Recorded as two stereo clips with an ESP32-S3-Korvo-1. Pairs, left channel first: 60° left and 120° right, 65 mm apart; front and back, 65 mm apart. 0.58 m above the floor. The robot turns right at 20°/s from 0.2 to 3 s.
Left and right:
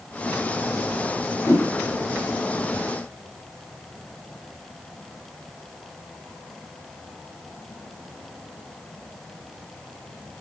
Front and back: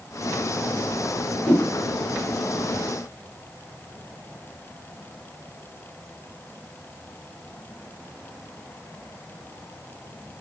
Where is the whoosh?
55° left, 1.6 m; by 1.7 s 60° left, 1.6 m.